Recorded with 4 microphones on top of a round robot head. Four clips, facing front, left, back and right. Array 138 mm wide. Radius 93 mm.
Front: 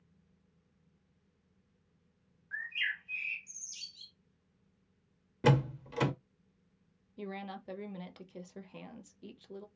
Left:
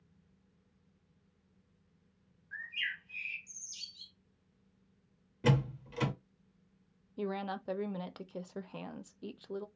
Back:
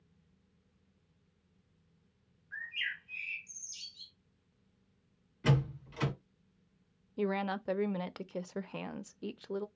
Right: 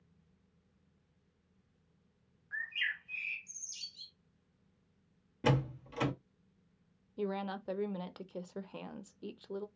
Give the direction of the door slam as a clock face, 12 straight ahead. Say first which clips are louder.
Left 1 dB, front 4 dB; 12 o'clock.